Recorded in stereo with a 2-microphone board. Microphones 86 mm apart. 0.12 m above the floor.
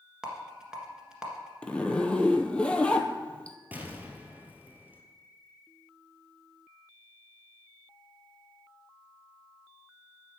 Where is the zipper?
15° left (ahead or behind), 0.8 m.